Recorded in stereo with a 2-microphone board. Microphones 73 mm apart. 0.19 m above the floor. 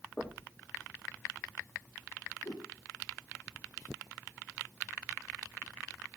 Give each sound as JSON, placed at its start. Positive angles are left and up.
{"t": 0.2, "sound": "knocking", "side_deg": 25, "distance_m": 5.5}
{"t": 2.4, "sound": "a whoosh", "side_deg": 55, "distance_m": 3.0}